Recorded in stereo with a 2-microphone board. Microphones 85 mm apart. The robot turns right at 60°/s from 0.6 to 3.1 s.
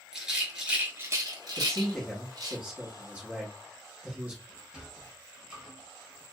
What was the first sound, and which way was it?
A rattle, 5° right (ahead or behind).